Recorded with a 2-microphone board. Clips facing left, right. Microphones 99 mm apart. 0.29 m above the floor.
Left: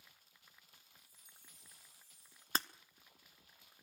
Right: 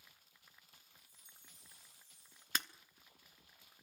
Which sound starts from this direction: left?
Breaking glass, at 2.5 s.